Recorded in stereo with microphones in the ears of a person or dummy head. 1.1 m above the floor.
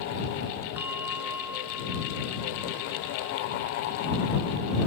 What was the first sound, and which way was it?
A bell, 15° right (ahead or behind).